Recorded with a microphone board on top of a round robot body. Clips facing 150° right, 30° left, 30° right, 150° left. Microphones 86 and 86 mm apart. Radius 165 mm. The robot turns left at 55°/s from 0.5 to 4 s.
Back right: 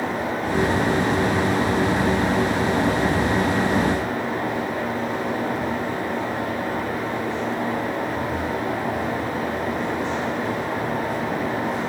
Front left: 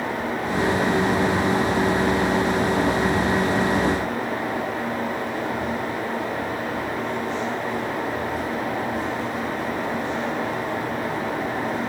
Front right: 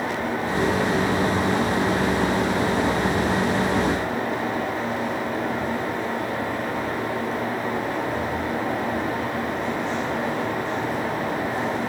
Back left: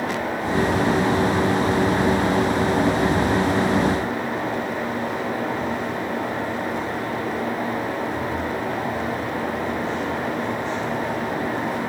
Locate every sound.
Only background noise.